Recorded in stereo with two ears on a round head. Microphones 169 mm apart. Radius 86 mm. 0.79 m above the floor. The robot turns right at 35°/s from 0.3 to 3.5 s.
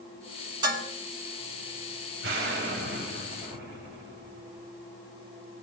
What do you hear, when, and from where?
0.6 s dishes clattering: 20° right (ahead or behind), 5 m; by 0.9 s 30° right (ahead or behind), 5 m
2.2 s an explosion: 100° right, 5 m; by 4.7 s 55° right, 5 m